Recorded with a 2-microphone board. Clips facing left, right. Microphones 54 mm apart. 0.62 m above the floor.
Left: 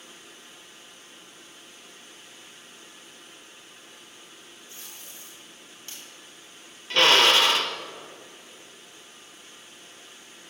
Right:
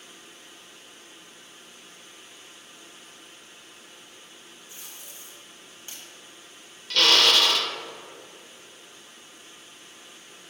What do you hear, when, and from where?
4.7 s tape being pulled: 20° right (ahead or behind), 3.5 m
6.9 s a drill: 25° left (ahead or behind), 0.7 m